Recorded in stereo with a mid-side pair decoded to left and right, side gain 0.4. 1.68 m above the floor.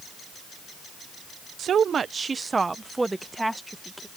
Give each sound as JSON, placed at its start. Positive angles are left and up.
{"t": 1.6, "sound": "a woman speaking", "azimuth_deg": -65}